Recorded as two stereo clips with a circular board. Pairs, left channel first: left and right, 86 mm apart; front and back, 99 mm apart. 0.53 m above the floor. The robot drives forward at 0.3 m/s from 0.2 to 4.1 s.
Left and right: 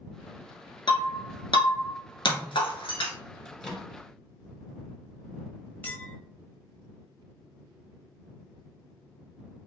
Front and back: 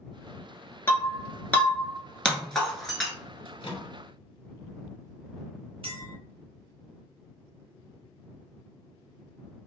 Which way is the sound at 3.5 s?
5° left.